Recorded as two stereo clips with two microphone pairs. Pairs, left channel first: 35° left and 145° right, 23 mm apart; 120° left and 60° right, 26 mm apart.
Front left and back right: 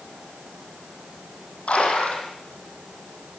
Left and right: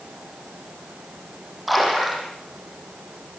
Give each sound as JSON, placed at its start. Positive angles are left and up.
{"t": 1.7, "sound": "a splash", "azimuth_deg": 30, "distance_m": 10.0}